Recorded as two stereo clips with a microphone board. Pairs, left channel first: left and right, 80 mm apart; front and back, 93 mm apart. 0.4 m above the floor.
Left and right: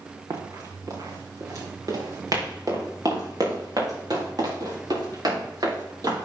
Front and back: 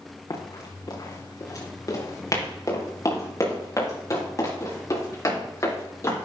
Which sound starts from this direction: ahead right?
Running footsteps, at 0.3 s.